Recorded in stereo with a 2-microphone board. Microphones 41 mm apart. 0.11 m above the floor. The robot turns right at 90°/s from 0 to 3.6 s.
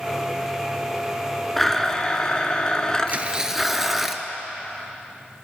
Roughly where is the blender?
Centre.